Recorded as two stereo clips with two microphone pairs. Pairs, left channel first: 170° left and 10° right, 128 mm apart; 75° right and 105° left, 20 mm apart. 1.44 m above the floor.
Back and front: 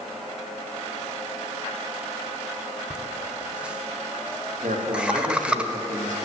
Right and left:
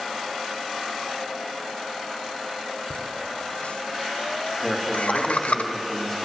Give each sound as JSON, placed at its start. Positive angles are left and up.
{"t": 2.9, "sound": "laughter", "azimuth_deg": -95, "distance_m": 0.7}
{"t": 4.6, "sound": "a man speaking", "azimuth_deg": 0, "distance_m": 1.9}